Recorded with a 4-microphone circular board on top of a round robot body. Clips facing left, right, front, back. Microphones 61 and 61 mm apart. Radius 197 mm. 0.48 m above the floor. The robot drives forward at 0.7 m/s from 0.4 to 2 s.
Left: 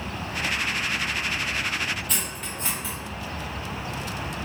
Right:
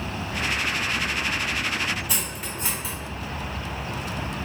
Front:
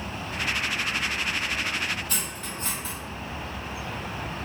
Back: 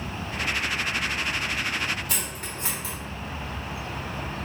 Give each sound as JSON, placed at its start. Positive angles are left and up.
{"t": 2.1, "sound": "cutlery clinking", "azimuth_deg": -175, "distance_m": 1.2}